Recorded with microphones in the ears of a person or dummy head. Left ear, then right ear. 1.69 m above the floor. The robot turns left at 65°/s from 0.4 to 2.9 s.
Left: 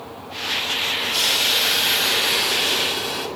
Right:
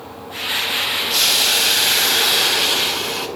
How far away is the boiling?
About 6 m.